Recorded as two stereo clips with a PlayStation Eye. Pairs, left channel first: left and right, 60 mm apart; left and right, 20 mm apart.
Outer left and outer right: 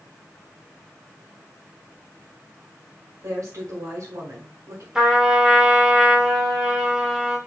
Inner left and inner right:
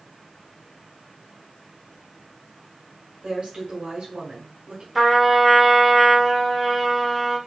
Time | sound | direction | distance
3.2 | a woman speaking | 60° right (ahead or behind) | 1.8 m
5.0 | a trumpet | 10° right (ahead or behind) | 1.2 m